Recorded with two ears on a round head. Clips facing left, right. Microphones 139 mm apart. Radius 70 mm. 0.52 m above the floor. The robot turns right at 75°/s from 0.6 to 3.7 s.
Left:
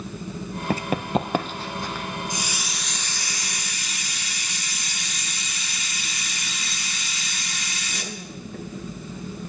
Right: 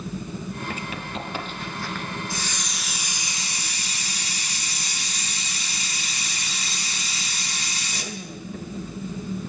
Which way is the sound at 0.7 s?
30° left (ahead or behind).